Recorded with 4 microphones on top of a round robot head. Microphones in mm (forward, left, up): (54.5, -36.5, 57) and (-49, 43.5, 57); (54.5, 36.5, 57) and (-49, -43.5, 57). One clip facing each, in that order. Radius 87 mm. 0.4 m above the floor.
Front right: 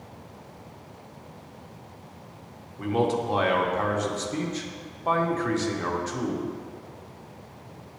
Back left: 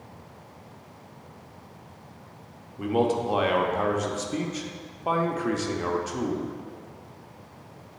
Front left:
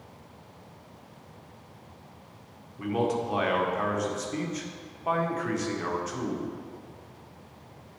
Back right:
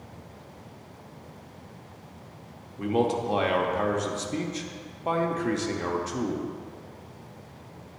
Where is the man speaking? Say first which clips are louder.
Back left 1 dB, back right 2 dB; 155° right, 0.9 m.